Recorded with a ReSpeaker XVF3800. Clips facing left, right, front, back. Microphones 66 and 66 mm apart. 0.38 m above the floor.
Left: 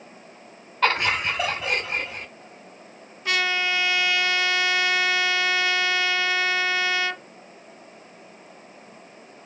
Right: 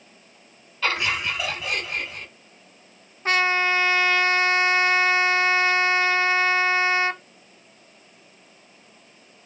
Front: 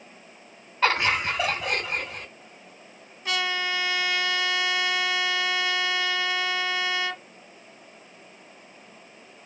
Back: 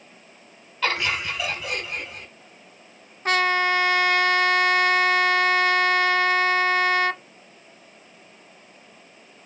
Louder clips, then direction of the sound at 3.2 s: Right 3 dB, back 7 dB; 140° right.